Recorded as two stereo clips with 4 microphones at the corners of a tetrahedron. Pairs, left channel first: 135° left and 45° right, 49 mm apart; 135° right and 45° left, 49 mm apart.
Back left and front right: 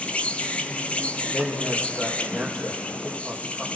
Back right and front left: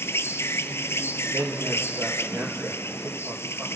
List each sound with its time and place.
0.0 s an insect: 160° right, 1.1 m
1.3 s a man speaking: 50° left, 4 m